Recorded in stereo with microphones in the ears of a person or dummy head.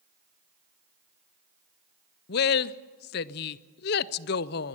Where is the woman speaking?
55° left (ahead or behind), 0.6 m.